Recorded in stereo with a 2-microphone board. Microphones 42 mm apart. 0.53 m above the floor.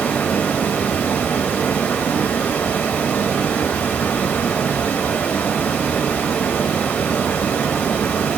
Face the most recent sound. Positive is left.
turn(degrees=45)  # may be behind; listen again after turning